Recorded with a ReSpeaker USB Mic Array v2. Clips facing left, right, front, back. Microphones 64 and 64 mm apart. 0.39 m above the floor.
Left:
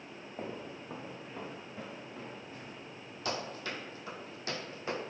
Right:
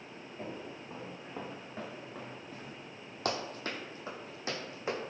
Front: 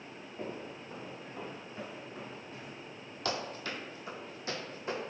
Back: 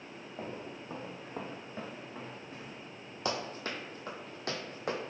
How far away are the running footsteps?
About 0.8 m.